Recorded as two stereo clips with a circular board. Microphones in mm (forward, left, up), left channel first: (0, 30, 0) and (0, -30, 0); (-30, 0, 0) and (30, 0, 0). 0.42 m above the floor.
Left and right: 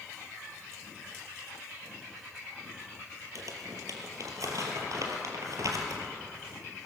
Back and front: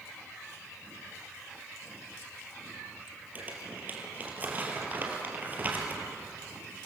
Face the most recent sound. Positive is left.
turn(degrees=-60)